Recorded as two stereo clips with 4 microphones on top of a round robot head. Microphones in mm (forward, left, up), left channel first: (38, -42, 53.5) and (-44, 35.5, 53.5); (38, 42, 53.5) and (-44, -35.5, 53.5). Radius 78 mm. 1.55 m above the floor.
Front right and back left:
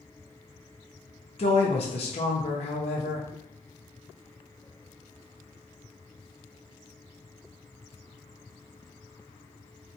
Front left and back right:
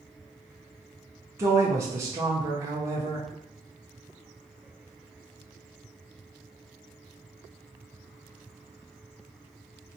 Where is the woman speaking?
75° right, 0.6 m.